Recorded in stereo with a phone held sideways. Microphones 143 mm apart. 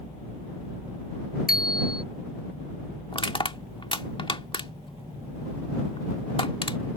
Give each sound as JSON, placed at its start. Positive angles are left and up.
{"t": 1.5, "sound": "a bicycle bell", "side_deg": 90}
{"t": 3.1, "sound": "crushing", "side_deg": 35}